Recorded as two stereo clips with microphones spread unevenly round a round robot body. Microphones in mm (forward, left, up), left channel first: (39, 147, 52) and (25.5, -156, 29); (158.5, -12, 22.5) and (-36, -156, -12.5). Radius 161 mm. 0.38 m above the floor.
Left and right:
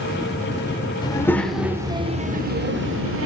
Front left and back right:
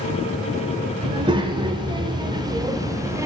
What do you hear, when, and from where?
1.0 s a child speaking: 160° left, 0.9 m; by 3.3 s 75° right, 1.1 m